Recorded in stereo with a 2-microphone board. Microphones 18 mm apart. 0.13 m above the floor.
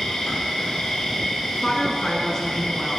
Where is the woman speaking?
25° left (ahead or behind), 1.2 m.